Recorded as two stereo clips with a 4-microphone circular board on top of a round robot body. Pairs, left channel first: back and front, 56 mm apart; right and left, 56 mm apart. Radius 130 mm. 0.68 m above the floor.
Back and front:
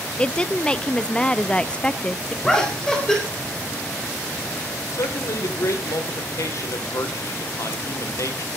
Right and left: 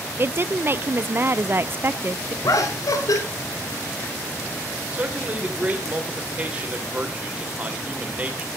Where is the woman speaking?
115° left, 0.8 m.